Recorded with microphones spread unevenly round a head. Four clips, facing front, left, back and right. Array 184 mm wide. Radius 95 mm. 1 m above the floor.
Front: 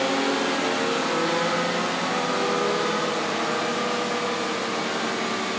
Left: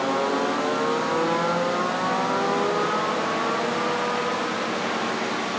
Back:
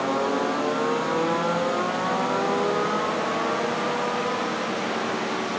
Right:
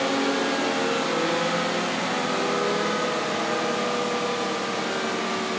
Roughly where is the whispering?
I don't hear whispering.